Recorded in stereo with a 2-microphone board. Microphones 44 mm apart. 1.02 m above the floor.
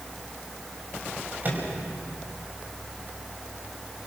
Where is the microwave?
40° right (ahead or behind), 5 m.